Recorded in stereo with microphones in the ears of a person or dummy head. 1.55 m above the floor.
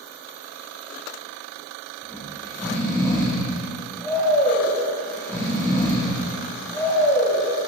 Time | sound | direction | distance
2.0 | snoring | 5° left (ahead or behind) | 0.8 m